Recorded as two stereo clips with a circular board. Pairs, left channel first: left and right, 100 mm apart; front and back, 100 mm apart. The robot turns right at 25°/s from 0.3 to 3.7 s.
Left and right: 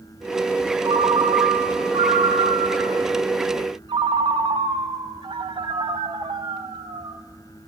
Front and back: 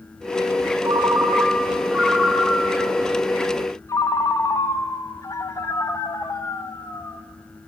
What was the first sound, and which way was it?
A ringtone, 130° right.